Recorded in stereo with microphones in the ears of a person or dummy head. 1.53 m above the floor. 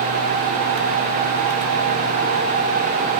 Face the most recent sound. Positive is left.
No sound to turn to.